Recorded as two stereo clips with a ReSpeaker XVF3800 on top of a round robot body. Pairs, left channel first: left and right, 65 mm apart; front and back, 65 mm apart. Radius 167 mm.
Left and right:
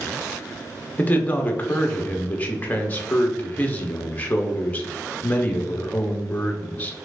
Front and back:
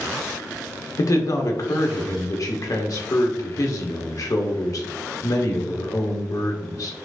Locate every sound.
1.0 s a man speaking: 30° left, 1.2 m